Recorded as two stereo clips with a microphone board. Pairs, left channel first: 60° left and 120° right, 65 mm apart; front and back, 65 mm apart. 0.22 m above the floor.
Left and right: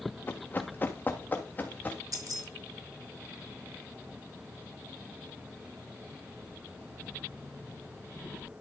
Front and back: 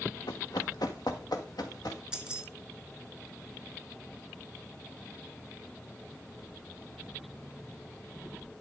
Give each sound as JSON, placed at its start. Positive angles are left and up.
{"t": 0.3, "sound": "running footsteps", "azimuth_deg": 0, "distance_m": 1.1}
{"t": 2.1, "sound": "keys jangling", "azimuth_deg": -105, "distance_m": 1.9}